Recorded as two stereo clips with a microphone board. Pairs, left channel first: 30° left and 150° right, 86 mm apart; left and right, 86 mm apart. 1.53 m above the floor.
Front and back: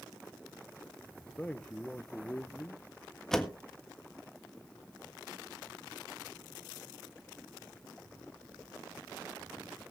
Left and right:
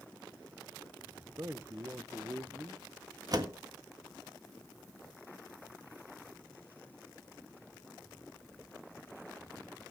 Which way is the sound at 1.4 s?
40° right.